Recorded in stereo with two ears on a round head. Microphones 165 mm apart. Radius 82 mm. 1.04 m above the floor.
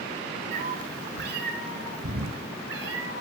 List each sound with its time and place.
0.5 s a cat meowing: 45° right (ahead or behind), 1.3 m; by 3.2 s 75° right (ahead or behind), 3 m